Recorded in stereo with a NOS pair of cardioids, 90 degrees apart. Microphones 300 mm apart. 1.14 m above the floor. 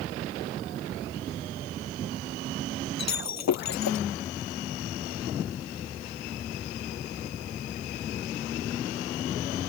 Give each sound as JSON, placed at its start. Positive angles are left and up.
{"t": 3.0, "sound": "breaking glass", "azimuth_deg": 60}